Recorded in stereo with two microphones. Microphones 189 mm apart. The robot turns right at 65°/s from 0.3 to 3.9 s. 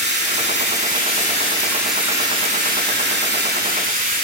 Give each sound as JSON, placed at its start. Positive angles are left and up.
{"t": 0.0, "sound": "running water", "azimuth_deg": 75, "distance_m": 3.0}